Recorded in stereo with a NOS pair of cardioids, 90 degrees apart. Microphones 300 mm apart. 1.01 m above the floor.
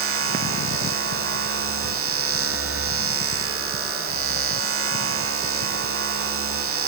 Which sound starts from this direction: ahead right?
A machine running, at 0.0 s.